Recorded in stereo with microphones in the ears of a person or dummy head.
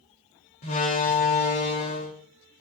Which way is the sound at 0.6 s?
35° left (ahead or behind).